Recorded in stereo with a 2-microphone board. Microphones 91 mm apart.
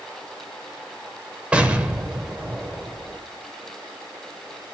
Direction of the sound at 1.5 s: 15° right (ahead or behind).